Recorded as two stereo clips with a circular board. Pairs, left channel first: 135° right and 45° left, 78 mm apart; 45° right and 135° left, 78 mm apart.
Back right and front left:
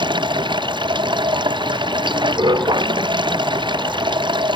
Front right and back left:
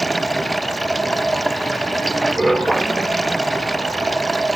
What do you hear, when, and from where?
0.0 s running water: 45° left